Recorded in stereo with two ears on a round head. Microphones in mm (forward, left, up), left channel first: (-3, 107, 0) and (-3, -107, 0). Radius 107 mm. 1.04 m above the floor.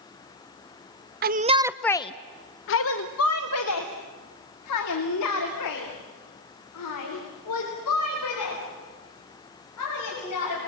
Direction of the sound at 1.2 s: 40° right (ahead or behind).